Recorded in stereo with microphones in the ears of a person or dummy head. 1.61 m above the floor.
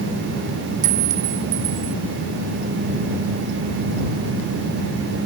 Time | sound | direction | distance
0.8 | a clink | 35° right (ahead or behind) | ?